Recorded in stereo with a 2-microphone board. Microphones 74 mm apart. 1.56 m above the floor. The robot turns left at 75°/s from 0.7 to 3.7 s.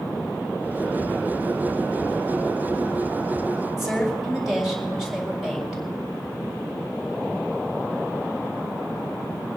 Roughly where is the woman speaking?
Centre.